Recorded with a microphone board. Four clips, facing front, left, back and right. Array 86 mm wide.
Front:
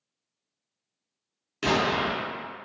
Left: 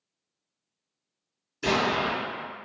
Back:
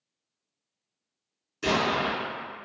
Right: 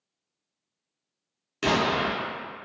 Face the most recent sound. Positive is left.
turn(degrees=-55)